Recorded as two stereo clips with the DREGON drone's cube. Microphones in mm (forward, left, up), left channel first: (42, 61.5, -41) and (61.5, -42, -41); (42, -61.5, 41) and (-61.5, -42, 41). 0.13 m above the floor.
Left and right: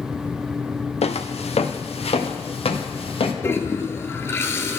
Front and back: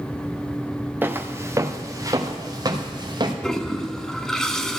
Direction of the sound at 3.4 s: 70° left.